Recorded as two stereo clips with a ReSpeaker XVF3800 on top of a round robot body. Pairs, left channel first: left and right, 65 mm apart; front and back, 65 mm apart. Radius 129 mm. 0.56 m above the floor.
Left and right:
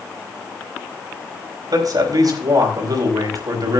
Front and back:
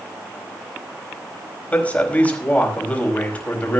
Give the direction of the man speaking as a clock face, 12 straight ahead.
2 o'clock.